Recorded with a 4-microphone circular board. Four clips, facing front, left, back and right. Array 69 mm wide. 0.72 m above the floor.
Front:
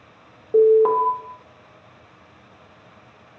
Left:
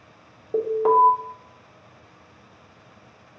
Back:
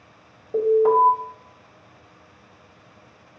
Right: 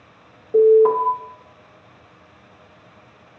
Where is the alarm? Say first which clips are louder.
Right 6 dB, front 3 dB; 5° left, 1.2 m.